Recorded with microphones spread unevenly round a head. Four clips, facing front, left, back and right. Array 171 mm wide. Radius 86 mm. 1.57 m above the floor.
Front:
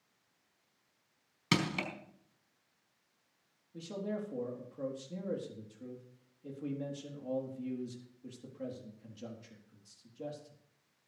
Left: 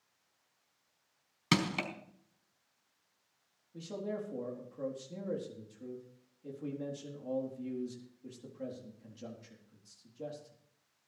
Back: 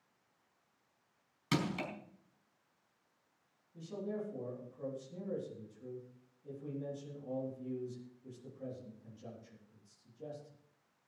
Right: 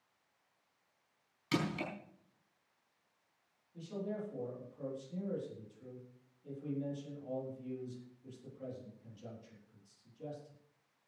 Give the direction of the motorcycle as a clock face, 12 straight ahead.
I don't hear a motorcycle.